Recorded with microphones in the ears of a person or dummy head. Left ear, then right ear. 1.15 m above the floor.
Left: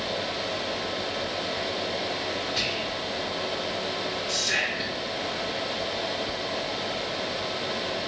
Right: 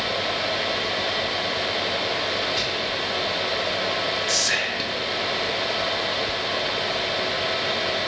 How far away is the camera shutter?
I don't hear a camera shutter.